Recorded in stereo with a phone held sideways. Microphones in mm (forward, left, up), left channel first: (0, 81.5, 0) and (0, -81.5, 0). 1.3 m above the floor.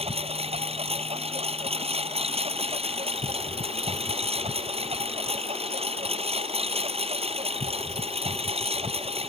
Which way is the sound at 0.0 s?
40° right (ahead or behind).